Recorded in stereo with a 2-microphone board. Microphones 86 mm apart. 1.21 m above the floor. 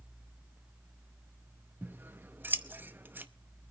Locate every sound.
1.8 s scissors: 25° right (ahead or behind), 0.7 m